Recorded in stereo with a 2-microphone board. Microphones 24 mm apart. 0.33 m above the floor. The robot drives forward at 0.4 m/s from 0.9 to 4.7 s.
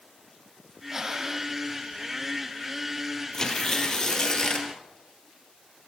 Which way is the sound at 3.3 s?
25° left (ahead or behind).